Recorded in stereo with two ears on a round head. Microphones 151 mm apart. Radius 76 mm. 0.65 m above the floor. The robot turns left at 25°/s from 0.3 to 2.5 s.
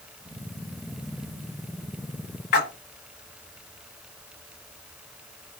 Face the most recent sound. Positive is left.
turn(degrees=60)  # may be behind; listen again after turning